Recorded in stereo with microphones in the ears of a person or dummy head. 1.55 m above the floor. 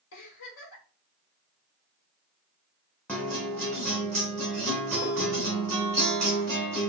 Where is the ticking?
I don't hear ticking.